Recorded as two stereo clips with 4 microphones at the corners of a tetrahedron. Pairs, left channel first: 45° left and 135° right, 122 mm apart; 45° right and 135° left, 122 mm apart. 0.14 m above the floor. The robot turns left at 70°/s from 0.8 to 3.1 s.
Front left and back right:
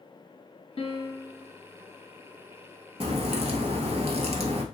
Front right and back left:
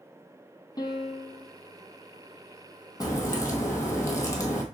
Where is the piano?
10° left, 0.8 m; by 1.5 s 40° right, 0.8 m.